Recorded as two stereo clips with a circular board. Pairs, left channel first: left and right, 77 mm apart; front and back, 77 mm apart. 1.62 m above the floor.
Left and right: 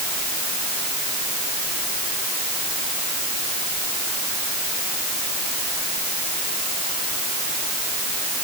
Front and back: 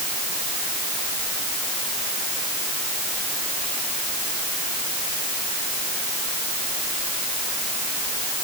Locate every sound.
Only background noise.